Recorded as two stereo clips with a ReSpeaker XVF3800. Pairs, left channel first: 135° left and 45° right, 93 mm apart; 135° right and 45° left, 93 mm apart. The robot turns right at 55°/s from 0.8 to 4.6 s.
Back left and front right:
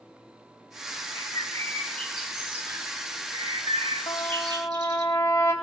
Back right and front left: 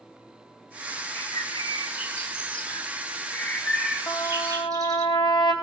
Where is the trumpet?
165° left, 3.5 m; by 5.5 s 165° right, 3.5 m.